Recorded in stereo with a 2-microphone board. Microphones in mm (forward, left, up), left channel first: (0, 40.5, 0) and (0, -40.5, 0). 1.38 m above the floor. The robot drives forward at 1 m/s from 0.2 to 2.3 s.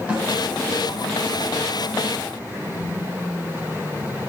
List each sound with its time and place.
0.1 s a snare drum: 15° right (ahead or behind), 4.5 m